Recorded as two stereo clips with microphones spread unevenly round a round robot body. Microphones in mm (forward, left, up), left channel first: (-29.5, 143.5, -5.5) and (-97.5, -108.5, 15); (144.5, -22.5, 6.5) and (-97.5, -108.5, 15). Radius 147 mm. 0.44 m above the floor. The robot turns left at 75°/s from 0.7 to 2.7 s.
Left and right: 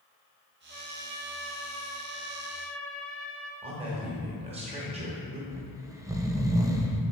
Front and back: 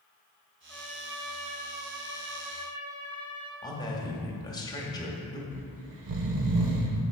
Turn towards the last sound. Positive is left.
turn(degrees=175)